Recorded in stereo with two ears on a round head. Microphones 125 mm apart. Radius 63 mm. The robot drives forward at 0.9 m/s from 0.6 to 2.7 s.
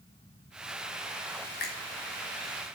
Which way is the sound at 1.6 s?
75° left (ahead or behind).